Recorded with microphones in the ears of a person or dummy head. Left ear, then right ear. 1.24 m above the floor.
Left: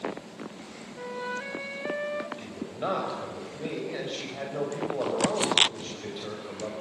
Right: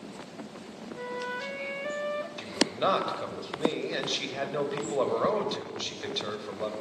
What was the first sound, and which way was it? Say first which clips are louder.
A flute: even; 10° right (ahead or behind).